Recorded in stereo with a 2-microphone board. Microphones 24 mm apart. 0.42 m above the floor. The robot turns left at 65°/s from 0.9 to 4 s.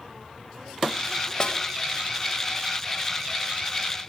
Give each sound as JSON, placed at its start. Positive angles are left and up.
{"t": 1.4, "sound": "a snare drum", "side_deg": 30, "distance_m": 1.7}